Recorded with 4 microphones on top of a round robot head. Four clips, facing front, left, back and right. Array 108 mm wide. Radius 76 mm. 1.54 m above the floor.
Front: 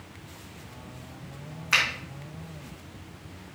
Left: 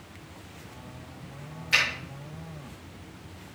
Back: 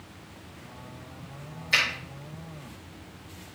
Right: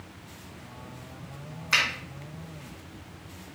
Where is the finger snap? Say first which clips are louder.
Even, front 1 dB; 30° right, 2.5 m.